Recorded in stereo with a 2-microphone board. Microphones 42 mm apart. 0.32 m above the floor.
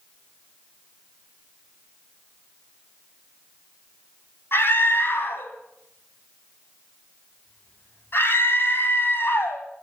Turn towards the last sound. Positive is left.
turn(degrees=60)  # may be behind; listen again after turning